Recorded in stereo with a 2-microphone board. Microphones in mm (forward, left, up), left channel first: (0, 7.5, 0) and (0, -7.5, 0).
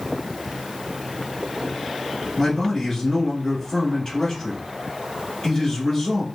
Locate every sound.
2.4 s a man speaking: 25° left (ahead or behind), 1.4 m